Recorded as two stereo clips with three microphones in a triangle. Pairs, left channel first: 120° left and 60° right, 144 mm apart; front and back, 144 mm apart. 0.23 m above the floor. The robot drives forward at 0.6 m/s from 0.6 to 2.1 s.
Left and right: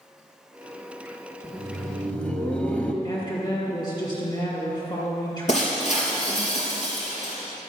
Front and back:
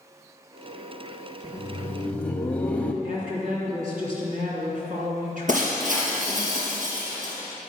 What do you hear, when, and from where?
1.4 s laughter: 30° left, 1.2 m; by 2.9 s 60° left, 1.1 m
3.0 s a woman speaking: 175° left, 3 m
5.5 s breaking glass: 155° left, 3 m